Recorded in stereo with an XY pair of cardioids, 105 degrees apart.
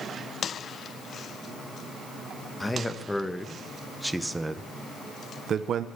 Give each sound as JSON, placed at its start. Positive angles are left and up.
{"t": 2.6, "sound": "a man speaking", "azimuth_deg": 15, "distance_m": 1.8}